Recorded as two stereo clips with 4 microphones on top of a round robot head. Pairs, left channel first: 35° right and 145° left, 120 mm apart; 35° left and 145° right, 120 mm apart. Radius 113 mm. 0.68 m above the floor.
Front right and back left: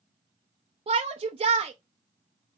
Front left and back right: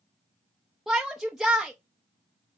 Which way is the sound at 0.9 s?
130° left.